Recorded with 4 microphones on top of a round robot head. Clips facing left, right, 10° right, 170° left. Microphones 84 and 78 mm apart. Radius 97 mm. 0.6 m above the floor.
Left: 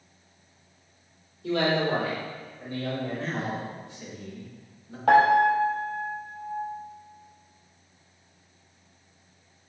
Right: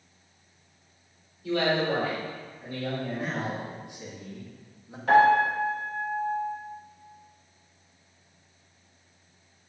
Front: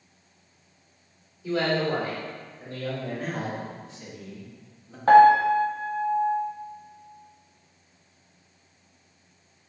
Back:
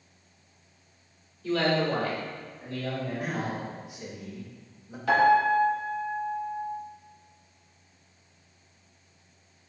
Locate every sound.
1.4 s a man speaking: 70° left, 1.8 m; by 3.7 s 25° left, 2.5 m
3.2 s a man speaking: 130° right, 1.0 m
5.1 s a piano: 45° left, 0.6 m